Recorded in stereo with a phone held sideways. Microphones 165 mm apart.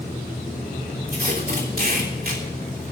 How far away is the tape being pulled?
About 3 m.